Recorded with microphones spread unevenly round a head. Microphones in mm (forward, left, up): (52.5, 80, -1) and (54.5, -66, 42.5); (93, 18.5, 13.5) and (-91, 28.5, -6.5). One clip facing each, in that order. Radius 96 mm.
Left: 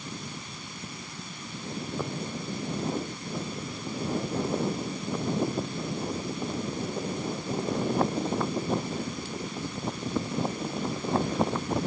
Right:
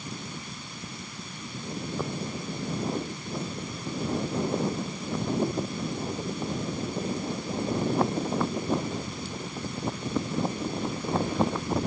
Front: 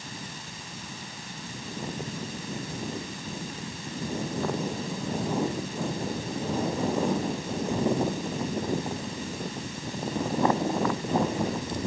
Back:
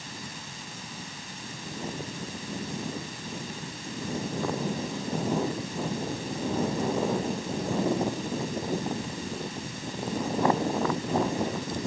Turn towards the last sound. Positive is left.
No sound to turn to.